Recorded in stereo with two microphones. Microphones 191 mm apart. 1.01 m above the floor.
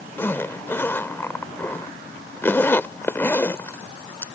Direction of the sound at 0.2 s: 10° left (ahead or behind).